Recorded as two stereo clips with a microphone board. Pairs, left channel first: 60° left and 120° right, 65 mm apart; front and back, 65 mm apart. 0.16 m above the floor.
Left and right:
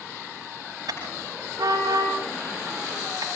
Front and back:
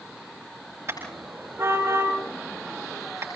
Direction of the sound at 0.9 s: 135° right.